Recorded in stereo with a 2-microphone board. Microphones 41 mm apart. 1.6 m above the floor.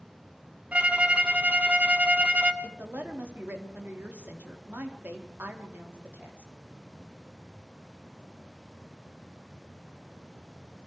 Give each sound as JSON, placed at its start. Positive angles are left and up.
{"t": 0.7, "sound": "a violin", "side_deg": -30, "distance_m": 2.0}
{"t": 2.6, "sound": "a woman speaking", "side_deg": -50, "distance_m": 4.0}